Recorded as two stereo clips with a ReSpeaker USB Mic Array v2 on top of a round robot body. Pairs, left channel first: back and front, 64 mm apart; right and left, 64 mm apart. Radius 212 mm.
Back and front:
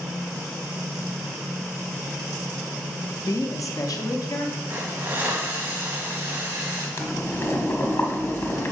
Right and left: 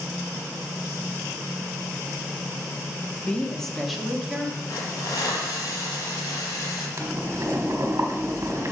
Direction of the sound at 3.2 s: 160° right.